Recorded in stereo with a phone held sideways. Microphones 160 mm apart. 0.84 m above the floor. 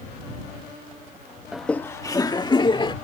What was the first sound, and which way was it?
Laughter, 5° right (ahead or behind).